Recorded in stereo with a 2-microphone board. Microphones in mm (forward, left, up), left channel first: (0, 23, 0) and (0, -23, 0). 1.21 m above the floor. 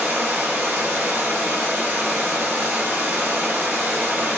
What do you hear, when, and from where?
0.0 s running water: 50° right (ahead or behind), 1.8 m